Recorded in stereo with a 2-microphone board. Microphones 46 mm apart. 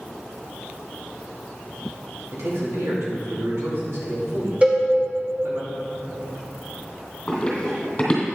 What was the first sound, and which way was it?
A man speaking, 70° right (ahead or behind).